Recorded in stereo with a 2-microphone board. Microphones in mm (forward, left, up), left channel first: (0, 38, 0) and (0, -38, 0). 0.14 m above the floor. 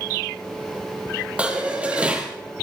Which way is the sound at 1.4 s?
15° right (ahead or behind).